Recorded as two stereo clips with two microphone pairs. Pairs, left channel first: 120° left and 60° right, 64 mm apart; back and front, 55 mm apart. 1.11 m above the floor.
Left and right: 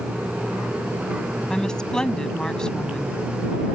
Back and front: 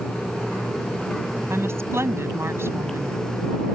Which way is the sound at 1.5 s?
40° left.